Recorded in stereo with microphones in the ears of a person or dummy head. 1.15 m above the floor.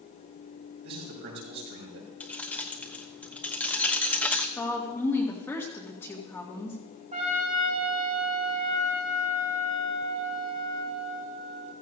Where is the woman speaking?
10° left (ahead or behind), 2 m.